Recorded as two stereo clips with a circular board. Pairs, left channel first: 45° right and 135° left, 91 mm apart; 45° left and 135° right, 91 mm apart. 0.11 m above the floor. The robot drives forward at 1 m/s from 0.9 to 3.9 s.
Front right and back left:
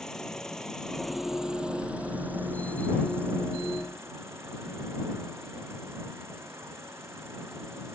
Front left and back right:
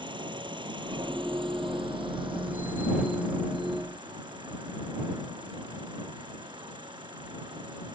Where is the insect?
130° right; by 8.0 s 165° right.